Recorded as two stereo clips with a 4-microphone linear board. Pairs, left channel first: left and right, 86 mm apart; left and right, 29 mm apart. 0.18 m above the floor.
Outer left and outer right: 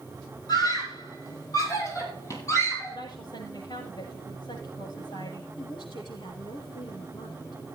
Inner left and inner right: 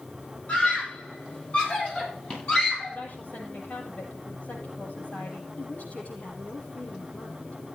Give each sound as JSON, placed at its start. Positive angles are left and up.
{"t": 0.5, "sound": "a scream", "side_deg": 50, "distance_m": 5.5}
{"t": 2.9, "sound": "a woman speaking", "side_deg": 55, "distance_m": 7.0}
{"t": 5.6, "sound": "a woman speaking", "side_deg": 65, "distance_m": 6.0}